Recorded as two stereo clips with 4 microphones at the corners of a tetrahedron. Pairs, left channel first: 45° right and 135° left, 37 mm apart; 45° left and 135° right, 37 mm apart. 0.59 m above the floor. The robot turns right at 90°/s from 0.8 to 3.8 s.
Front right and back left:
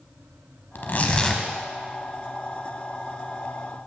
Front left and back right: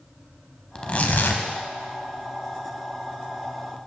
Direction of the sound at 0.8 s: 15° right.